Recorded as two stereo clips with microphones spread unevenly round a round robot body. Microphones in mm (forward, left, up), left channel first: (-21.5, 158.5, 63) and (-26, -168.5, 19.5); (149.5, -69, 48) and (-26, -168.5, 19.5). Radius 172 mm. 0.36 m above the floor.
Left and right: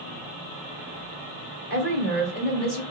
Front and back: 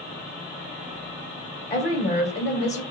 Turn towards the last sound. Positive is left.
turn(degrees=35)